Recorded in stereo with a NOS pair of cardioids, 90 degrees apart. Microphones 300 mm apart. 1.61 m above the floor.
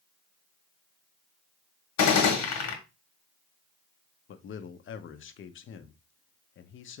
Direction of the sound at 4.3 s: 50° left.